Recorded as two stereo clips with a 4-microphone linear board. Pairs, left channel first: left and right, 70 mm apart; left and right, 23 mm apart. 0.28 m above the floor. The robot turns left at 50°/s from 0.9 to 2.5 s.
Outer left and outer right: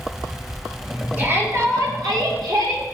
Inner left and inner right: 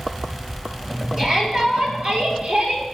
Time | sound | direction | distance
1.2 | a shout | 25° right | 5 m